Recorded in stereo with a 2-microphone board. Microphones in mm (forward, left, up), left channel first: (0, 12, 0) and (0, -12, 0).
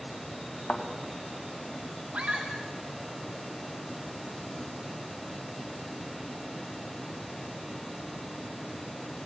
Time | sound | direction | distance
0.7 | a thud | 65° left (ahead or behind) | 2.5 m
2.1 | a scream | 65° right (ahead or behind) | 1.9 m